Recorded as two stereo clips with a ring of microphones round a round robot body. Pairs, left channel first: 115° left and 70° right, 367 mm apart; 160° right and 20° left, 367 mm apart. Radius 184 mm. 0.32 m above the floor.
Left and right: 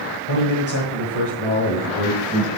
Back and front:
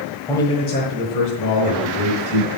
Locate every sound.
0.3 s a man speaking: 120° left, 1.5 m; by 2.5 s 160° right, 3 m